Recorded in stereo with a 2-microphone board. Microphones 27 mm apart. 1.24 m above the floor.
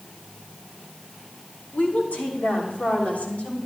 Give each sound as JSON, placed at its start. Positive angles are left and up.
{"t": 1.7, "sound": "a woman speaking", "side_deg": 85, "distance_m": 2.5}